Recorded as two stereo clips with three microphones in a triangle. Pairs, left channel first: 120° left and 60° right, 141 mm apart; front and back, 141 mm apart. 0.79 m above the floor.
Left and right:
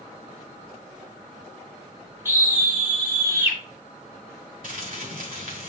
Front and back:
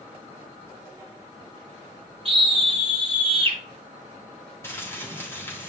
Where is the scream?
135° right, 3 m.